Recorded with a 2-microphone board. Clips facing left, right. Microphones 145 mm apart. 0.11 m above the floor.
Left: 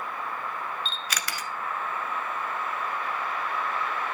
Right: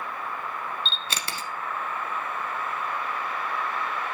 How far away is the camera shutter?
About 1.1 m.